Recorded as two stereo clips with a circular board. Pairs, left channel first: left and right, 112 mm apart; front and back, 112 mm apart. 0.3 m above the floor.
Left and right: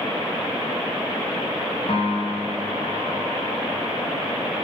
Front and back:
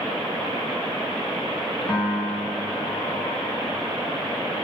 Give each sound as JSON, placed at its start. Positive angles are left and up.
{"t": 1.9, "sound": "a piano", "azimuth_deg": 85, "distance_m": 1.1}